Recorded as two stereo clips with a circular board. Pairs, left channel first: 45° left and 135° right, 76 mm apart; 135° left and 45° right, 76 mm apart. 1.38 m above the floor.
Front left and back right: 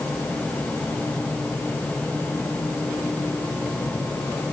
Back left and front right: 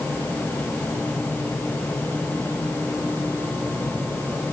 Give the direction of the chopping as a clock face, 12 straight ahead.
I don't hear chopping.